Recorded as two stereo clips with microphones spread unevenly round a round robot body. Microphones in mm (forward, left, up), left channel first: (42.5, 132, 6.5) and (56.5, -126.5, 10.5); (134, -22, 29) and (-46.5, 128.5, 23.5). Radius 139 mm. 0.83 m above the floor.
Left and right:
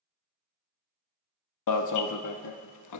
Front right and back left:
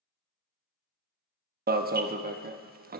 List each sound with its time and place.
1.7 s an alarm: 90° left, 1.1 m